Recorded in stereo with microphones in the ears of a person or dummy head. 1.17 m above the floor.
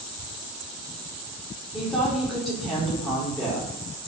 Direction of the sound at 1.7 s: Centre (ahead or behind).